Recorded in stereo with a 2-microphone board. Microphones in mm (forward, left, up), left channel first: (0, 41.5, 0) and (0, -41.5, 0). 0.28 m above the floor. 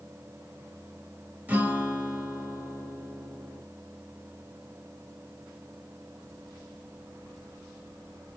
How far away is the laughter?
No laughter in this recording.